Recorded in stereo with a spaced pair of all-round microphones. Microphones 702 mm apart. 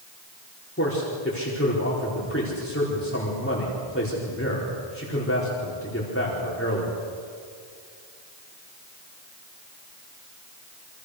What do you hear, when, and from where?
0.8 s a man speaking: 20° left (ahead or behind), 4.5 m